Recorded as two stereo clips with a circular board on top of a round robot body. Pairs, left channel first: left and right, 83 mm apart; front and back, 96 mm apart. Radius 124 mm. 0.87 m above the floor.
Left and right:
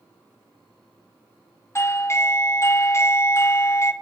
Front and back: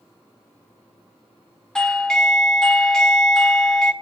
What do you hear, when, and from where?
1.8 s a doorbell: 75° left, 1.3 m